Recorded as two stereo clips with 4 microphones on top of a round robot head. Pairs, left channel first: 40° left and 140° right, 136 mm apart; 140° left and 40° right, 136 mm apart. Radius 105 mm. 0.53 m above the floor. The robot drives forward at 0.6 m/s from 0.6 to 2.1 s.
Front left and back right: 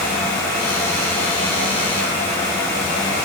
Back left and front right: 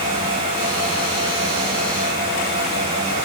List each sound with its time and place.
Only background noise.